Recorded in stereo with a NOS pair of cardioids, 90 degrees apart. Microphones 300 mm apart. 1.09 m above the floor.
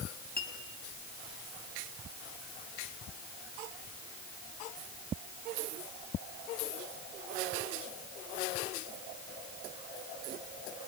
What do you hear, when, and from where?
0.4 s a clink: 30° left, 5 m